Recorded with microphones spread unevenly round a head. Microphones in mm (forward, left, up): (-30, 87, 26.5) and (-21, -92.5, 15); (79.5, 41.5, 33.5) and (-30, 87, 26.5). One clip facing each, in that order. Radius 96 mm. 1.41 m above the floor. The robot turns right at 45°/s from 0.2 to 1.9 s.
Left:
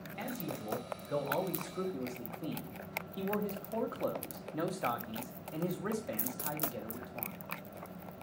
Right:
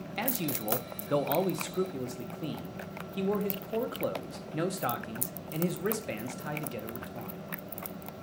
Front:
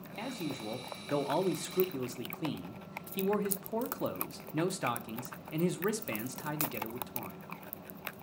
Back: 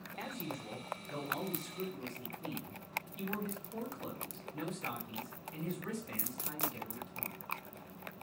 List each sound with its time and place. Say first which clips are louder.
0.2 s a man speaking: right 6 dB, front 5 dB; 100° right, 1.1 m; by 7.4 s 20° right, 1.1 m